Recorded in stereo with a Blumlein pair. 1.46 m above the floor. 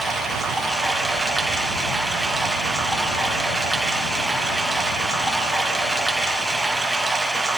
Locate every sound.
0.0 s running water: 5° right, 1.5 m